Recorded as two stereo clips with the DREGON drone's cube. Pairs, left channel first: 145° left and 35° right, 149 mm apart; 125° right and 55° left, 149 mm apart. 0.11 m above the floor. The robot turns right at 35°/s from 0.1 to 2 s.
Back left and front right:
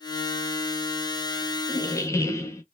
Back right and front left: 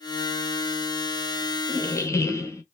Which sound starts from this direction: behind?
A squeak, at 1.7 s.